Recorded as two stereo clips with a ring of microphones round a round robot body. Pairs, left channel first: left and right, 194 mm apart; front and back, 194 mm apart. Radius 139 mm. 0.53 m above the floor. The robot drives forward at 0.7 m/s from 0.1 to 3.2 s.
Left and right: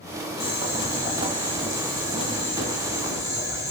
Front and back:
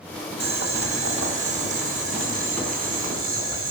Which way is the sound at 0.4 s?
160° right.